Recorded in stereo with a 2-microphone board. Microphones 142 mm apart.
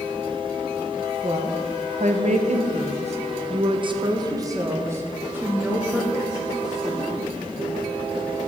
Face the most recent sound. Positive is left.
turn(degrees=-5)  # may be behind; listen again after turning